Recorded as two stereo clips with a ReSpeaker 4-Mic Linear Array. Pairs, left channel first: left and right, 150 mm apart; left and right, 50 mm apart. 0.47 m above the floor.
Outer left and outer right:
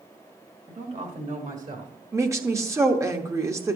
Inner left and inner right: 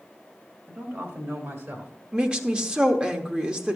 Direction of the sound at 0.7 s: 40° right (ahead or behind).